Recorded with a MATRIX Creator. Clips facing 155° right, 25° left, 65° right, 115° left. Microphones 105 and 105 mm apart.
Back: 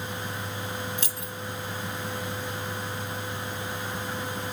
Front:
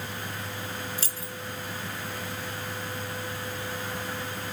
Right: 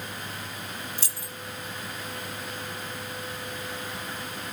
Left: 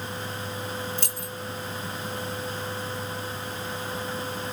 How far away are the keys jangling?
About 0.9 m.